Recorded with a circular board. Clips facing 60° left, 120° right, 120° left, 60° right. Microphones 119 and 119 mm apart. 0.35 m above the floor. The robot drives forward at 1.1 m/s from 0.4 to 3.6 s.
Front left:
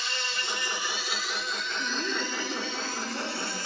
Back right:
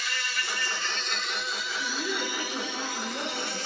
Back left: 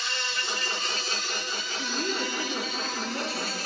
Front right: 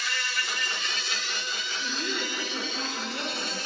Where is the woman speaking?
125° left, 7 m; by 3.6 s 135° left, 8.5 m.